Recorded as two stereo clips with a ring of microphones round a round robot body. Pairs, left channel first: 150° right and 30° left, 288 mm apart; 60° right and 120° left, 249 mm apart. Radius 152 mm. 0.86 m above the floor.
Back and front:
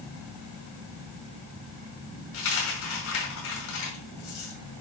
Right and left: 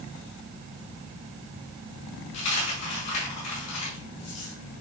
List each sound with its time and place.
2.3 s a dropped coin: 100° right, 5 m